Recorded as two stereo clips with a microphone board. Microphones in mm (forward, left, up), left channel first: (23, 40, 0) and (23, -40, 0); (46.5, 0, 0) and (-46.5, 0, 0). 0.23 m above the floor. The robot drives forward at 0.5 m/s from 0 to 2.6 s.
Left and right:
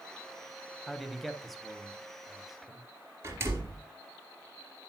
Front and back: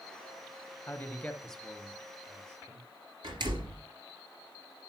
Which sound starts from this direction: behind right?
A door slam, at 3.2 s.